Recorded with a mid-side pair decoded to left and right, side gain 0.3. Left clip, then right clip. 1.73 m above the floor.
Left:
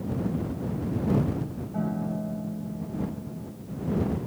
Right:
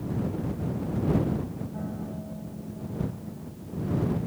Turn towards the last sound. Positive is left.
turn(degrees=65)